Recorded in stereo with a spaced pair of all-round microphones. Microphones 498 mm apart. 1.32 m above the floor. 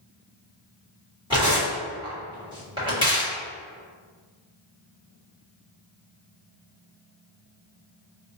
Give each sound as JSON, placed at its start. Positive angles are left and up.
{"t": 1.3, "sound": "tearing paper", "side_deg": -10, "distance_m": 1.5}